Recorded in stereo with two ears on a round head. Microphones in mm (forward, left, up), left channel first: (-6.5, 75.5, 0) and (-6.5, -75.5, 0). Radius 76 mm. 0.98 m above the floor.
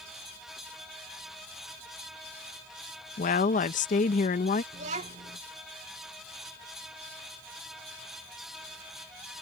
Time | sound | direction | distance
3.2 | a woman speaking | 50° left (ahead or behind) | ?
4.7 | a child speaking | 45° right (ahead or behind) | ?